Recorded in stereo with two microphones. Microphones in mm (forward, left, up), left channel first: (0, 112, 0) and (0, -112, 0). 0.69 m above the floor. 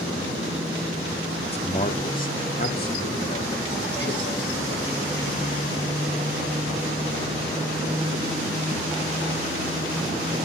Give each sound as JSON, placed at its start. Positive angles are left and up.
{"t": 1.4, "sound": "a man speaking", "side_deg": 25, "distance_m": 1.6}